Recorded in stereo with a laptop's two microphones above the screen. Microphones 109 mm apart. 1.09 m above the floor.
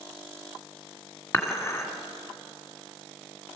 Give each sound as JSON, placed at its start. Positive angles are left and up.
{"t": 1.3, "sound": "dishes clattering", "side_deg": 20, "distance_m": 1.6}